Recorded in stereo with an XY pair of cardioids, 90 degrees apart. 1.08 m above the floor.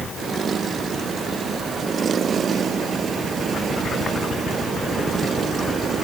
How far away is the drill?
No drill in this recording.